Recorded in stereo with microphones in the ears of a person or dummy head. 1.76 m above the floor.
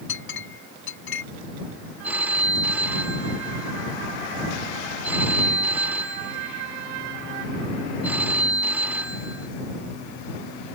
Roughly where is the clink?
Left.